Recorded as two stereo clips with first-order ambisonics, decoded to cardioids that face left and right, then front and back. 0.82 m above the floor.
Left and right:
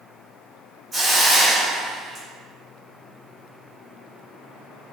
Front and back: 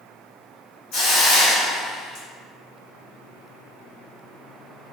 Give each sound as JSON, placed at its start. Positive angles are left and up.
{"t": 0.9, "sound": "a hiss", "azimuth_deg": -20, "distance_m": 1.3}